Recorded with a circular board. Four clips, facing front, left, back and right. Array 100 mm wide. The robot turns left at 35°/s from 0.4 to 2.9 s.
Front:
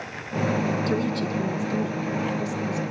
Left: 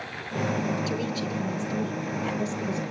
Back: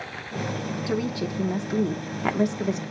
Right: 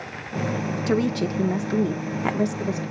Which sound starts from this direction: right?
A woman speaking, at 0.9 s.